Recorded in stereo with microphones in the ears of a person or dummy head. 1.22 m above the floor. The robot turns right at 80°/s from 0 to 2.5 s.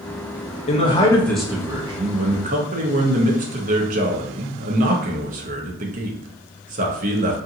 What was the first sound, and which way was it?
A man speaking, 125° left.